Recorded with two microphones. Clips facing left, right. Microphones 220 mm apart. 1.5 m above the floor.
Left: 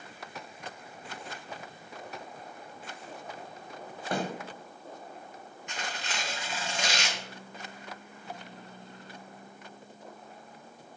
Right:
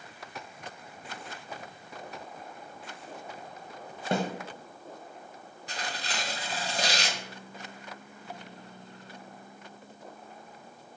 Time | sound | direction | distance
4.1 | a snare drum | 25° right (ahead or behind) | 0.8 m
5.7 | tearing paper | 35° right (ahead or behind) | 0.6 m